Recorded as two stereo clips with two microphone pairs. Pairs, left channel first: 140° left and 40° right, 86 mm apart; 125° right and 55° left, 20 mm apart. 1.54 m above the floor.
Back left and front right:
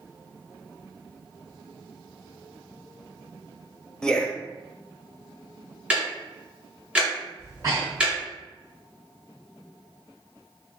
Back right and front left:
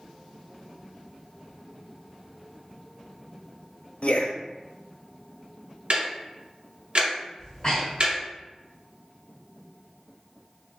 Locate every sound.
4.0 s a man speaking: 140° right, 0.5 m
5.9 s ticking: 40° left, 0.9 m
7.4 s breathing: 80° right, 1.9 m